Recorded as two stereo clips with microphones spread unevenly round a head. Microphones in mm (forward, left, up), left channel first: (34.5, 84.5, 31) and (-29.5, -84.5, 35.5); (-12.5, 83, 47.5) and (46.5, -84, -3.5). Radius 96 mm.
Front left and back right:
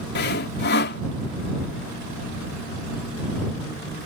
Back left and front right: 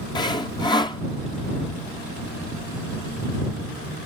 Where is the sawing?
40° left.